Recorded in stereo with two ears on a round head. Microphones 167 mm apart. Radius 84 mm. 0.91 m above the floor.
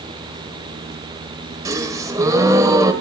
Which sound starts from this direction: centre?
A gasp, at 1.6 s.